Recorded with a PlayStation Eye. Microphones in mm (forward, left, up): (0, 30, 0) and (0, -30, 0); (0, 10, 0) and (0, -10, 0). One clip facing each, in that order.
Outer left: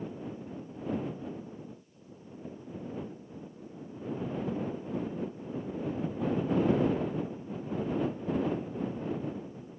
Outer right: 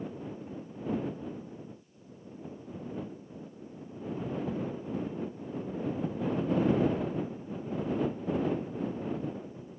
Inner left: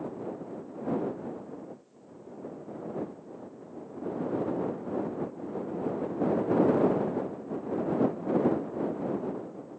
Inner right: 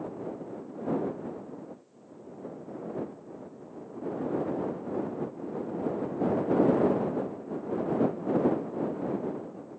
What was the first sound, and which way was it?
Only background noise.